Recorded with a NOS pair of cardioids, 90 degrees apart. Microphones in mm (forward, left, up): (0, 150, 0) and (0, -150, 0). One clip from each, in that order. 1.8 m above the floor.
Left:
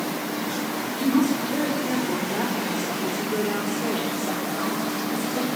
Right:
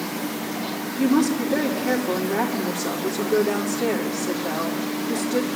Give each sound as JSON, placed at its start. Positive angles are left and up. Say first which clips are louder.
{"t": 0.9, "sound": "a woman speaking", "louder": "right 2 dB", "azimuth_deg": -55, "distance_m": 5.0}